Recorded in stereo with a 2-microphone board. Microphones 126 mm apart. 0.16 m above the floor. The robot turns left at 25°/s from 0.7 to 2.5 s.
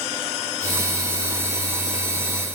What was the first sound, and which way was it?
Only background noise.